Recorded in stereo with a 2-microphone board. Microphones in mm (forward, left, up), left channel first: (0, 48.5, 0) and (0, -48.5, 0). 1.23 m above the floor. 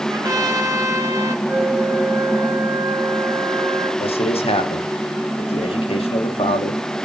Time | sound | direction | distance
0.1 | a trumpet | 40° right (ahead or behind) | 1.2 m
1.4 | a flute | 35° right (ahead or behind) | 4 m
4.0 | a man speaking | 80° left | 1.0 m